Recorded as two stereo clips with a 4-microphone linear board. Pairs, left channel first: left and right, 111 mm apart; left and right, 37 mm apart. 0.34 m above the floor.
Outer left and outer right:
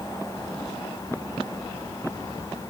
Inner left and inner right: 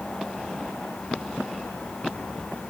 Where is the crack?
I don't hear a crack.